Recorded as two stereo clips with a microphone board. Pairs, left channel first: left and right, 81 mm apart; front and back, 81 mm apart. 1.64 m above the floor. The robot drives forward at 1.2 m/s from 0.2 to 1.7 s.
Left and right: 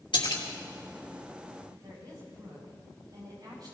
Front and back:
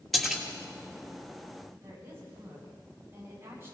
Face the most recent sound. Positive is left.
turn(degrees=-125)